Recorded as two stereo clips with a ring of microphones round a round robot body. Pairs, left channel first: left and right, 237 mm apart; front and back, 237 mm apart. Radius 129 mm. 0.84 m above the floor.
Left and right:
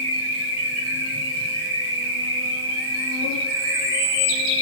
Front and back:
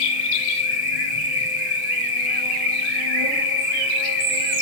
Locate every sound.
0.0 s an insect: 60° right, 2 m